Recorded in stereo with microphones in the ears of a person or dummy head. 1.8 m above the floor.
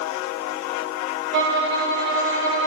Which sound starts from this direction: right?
A violin, at 1.3 s.